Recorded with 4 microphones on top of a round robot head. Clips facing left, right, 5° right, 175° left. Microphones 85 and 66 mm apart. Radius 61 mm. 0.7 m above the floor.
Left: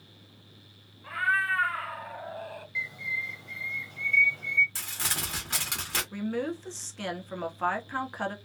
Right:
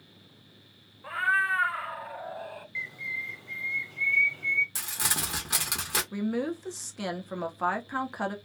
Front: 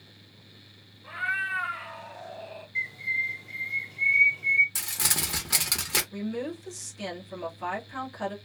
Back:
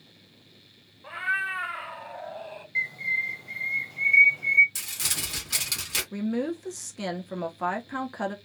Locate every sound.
1.0 s a cat meowing: 135° right, 0.6 m; by 2.6 s straight behind, 1.3 m
2.8 s a bird: 150° left, 0.7 m
4.8 s crumpling: 25° right, 0.9 m
6.1 s a woman speaking: 160° right, 0.7 m